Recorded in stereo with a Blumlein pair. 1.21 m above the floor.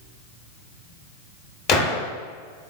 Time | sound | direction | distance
1.7 | a gunshot | 30° left | 1.0 m